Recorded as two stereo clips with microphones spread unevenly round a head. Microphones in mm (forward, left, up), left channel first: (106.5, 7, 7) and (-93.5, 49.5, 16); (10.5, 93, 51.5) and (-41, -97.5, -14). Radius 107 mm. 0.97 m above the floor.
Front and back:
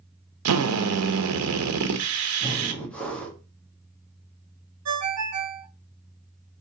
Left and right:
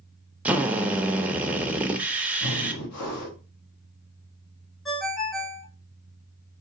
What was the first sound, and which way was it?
A drill, 175° left.